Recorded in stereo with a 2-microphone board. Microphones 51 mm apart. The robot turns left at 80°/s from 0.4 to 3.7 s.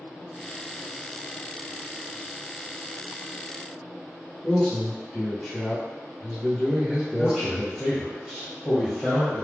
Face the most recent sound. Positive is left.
turn(degrees=-5)  # may be behind; listen again after turning